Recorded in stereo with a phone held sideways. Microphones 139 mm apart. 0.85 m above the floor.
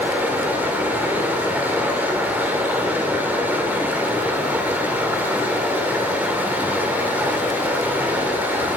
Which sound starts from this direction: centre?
Running water, at 0.0 s.